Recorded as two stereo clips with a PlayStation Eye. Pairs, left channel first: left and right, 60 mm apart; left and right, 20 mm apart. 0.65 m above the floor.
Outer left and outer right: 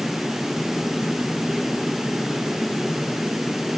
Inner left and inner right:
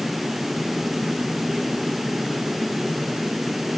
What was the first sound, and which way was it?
Only background noise.